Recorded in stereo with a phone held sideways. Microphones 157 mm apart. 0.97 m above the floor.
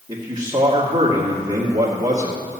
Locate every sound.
0.1 s a man speaking: 35° right (ahead or behind), 2.5 m